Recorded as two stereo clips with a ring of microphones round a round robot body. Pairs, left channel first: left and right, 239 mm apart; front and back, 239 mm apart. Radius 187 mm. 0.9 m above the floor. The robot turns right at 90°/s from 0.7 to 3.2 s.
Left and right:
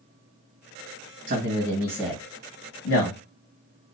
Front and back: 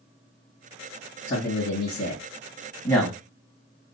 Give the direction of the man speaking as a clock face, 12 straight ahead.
2 o'clock.